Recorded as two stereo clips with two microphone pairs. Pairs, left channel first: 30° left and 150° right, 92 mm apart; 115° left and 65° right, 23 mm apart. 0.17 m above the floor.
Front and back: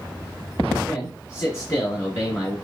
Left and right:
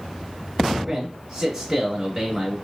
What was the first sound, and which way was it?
A man speaking, 15° left.